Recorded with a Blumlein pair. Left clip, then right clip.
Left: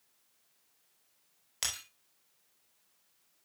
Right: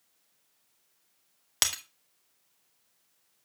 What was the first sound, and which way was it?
Breaking glass, 45° right.